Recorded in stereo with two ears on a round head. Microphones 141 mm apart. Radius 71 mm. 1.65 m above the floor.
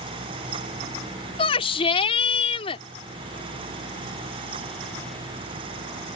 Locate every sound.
1.4 s a shout: 40° left (ahead or behind)